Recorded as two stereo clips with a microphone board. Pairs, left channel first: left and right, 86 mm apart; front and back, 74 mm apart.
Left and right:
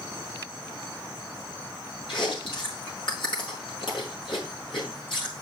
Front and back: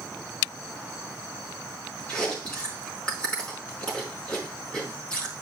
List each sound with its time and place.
2.1 s chewing: 75° left, 5 m